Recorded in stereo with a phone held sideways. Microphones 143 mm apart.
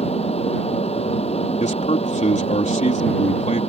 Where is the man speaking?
55° left (ahead or behind).